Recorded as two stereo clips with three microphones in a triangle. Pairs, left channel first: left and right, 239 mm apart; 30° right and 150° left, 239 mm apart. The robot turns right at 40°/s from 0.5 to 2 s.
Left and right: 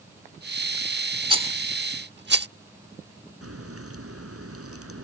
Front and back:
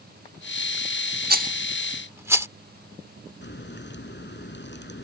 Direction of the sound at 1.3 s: 160° right.